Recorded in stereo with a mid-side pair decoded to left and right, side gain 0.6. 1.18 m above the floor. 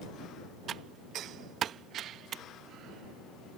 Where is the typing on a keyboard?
50° right.